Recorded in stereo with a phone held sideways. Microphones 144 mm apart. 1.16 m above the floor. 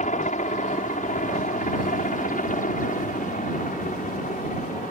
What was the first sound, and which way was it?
A helicopter, 60° left (ahead or behind).